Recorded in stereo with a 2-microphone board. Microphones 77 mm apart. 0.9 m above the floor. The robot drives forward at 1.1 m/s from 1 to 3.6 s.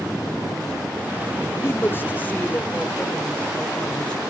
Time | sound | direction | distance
1.6 | a man speaking | 35° left (ahead or behind) | 1.5 m